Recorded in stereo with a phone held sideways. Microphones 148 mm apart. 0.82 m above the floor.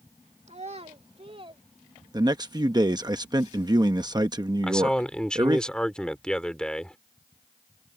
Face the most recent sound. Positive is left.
turn(degrees=5)  # may be behind; listen again after turning